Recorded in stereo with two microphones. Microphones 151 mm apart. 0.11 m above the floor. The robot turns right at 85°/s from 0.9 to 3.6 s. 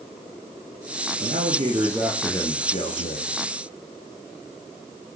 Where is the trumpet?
I don't hear a trumpet.